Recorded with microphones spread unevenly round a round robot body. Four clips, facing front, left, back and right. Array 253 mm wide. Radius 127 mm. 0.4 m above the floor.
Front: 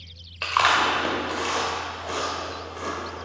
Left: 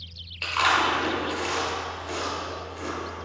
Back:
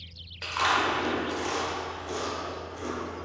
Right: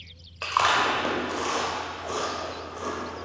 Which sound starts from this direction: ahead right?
Chewing, at 0.4 s.